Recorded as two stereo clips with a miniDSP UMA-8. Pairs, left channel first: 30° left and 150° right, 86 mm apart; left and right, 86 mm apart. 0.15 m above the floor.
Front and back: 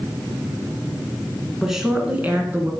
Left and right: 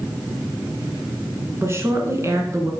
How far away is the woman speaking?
About 1.9 m.